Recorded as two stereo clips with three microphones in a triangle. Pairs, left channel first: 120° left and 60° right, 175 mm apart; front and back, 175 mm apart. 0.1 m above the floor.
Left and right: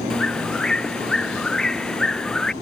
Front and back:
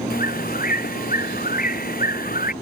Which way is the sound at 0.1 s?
35° left.